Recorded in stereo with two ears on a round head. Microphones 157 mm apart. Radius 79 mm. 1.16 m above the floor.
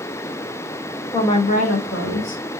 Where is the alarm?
No alarm in this recording.